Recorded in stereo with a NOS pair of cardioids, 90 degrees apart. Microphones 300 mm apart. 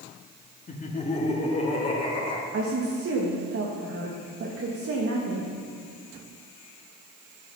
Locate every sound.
0.7 s laughter: 25° left, 2.5 m; by 2.4 s 20° left, 5 m
2.5 s a woman speaking: 50° right, 2 m